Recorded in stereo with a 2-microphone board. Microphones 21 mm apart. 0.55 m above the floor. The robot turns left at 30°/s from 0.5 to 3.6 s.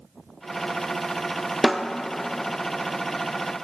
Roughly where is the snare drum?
Centre.